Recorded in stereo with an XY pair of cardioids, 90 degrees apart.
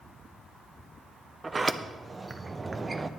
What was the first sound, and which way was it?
A sliding door, 30° right.